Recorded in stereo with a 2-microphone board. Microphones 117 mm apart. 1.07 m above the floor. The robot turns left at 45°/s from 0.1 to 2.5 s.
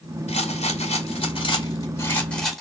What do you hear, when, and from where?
0.3 s a rattle: 105° left, 2 m; by 2.6 s 5° left, 2 m